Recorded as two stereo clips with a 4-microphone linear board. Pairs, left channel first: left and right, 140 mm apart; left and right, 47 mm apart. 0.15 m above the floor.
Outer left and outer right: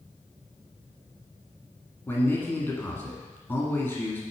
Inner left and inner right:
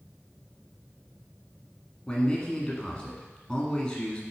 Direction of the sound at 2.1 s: 15° left (ahead or behind).